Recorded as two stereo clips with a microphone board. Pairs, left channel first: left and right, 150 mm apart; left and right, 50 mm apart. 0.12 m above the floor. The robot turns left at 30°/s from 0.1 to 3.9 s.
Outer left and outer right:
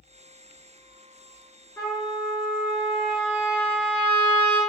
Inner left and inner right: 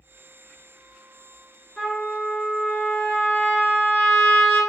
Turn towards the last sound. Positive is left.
turn(degrees=85)